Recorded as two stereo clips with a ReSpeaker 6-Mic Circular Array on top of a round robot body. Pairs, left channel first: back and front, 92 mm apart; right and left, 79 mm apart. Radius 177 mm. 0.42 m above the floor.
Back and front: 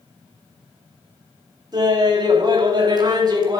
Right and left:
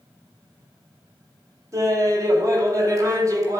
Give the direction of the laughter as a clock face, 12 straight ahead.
11 o'clock.